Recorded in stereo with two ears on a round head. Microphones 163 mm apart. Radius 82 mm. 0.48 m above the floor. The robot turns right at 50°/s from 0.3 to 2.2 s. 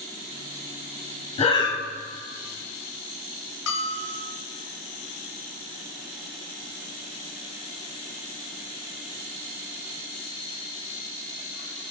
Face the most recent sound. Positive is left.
turn(degrees=70)  # may be behind; listen again after turning